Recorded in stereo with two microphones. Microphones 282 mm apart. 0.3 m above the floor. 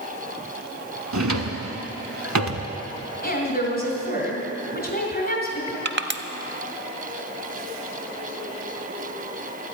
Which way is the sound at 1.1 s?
80° right.